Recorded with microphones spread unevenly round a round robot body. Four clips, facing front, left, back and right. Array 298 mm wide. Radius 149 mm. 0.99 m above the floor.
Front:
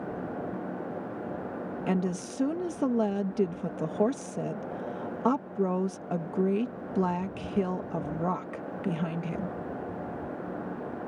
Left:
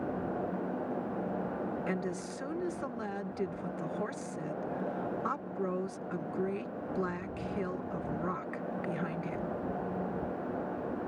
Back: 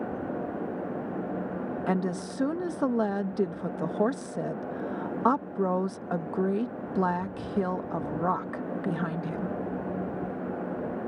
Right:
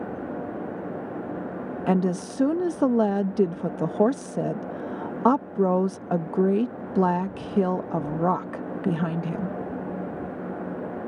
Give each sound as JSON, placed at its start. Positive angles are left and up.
{"t": 1.9, "sound": "a woman speaking", "azimuth_deg": -95}